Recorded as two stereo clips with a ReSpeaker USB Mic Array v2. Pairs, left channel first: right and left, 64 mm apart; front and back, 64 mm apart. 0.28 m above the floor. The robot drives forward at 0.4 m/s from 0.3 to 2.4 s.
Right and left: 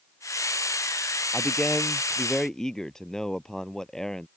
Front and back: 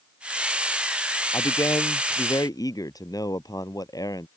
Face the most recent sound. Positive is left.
turn(degrees=-10)